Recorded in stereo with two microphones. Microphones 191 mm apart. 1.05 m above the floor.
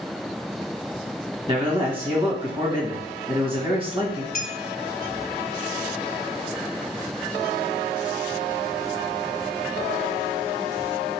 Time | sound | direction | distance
1.5 | a man speaking | 30° right (ahead or behind) | 1.7 m
4.3 | a clink | 50° left (ahead or behind) | 1.0 m